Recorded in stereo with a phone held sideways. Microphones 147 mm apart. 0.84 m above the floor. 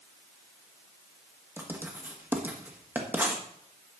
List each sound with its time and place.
1.6 s writing: 15° right (ahead or behind), 1.5 m